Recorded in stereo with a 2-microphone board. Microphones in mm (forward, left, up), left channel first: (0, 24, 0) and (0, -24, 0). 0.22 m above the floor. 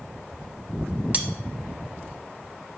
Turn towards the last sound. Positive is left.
turn(degrees=-35)  # may be behind; listen again after turning